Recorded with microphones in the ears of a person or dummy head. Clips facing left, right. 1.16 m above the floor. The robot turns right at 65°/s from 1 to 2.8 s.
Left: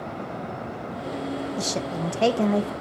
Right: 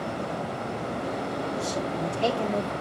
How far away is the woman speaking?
About 1.0 m.